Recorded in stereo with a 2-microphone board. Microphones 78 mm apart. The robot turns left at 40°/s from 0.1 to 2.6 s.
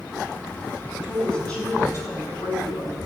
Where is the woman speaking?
Straight behind, 6.5 m; by 3.0 s 115° left, 6.5 m.